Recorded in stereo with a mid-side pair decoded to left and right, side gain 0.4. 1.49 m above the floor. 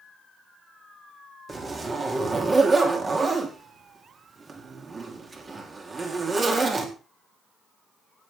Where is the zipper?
40° right, 3.5 m.